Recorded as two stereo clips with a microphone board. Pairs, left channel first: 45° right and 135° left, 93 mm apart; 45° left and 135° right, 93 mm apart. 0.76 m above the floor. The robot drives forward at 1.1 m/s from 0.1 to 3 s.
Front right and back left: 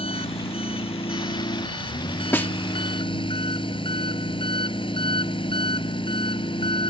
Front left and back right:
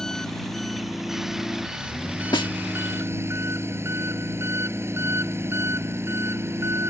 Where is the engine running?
40° right; by 6.9 s 70° right.